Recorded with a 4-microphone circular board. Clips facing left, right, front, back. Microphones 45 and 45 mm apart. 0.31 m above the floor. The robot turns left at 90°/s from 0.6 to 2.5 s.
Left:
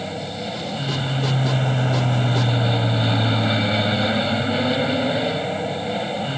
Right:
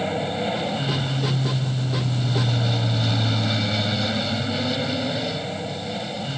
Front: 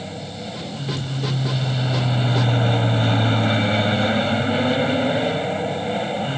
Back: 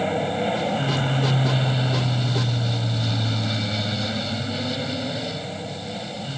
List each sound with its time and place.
0.0 s an aircraft: 155° right; by 6.4 s 35° left